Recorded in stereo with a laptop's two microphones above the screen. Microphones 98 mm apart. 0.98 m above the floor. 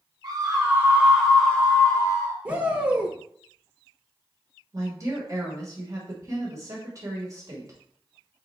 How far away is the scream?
About 1.3 m.